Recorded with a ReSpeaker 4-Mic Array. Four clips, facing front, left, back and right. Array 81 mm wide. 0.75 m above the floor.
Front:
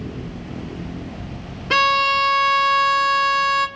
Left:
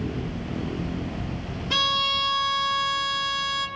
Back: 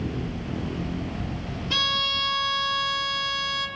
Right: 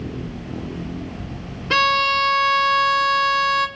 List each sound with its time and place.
1.7 s a violin: 35° right, 1.0 m